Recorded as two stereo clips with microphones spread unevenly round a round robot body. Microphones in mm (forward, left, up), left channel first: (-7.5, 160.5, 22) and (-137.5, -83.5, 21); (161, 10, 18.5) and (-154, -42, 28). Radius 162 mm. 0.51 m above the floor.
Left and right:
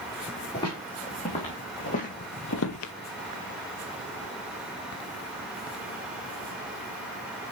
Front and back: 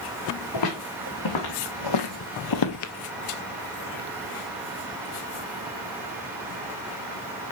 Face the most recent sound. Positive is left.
turn(degrees=50)